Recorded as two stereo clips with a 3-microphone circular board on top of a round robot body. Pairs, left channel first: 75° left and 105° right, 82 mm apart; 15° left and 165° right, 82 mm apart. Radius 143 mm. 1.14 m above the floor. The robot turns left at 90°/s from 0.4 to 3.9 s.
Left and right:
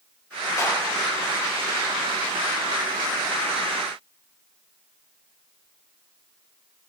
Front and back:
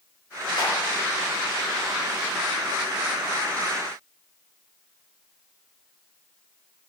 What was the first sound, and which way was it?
A clap, 30° left.